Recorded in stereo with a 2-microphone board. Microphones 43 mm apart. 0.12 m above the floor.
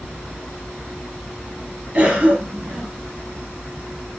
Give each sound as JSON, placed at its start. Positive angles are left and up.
{"t": 1.9, "sound": "a cough", "side_deg": -20, "distance_m": 2.5}